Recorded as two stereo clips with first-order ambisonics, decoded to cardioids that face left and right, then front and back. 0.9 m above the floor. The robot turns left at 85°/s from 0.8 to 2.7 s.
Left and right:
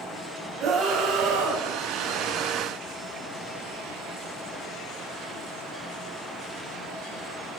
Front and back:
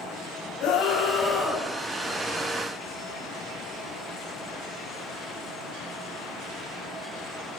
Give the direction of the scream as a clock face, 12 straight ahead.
1 o'clock.